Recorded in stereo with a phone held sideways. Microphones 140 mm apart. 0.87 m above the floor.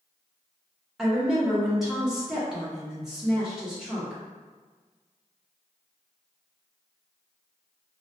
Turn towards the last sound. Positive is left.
turn(degrees=-5)  # may be behind; listen again after turning